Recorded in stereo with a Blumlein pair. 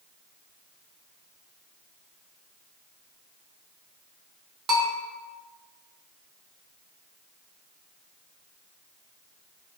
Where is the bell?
25° right, 0.7 m.